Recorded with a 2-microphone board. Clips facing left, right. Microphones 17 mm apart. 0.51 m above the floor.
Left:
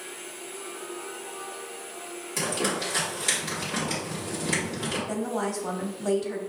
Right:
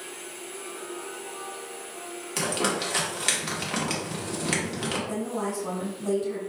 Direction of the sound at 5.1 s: 40° left (ahead or behind).